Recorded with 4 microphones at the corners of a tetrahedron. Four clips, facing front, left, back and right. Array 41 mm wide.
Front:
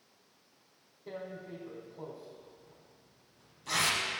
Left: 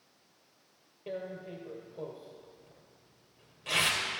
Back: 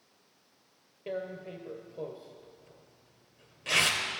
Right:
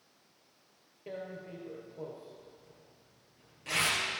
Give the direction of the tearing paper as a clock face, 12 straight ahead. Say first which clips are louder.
Left 3 dB, back 5 dB; 6 o'clock.